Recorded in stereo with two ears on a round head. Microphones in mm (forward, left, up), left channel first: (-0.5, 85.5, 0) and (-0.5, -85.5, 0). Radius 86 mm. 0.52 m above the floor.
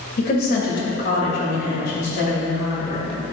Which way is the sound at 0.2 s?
50° left (ahead or behind).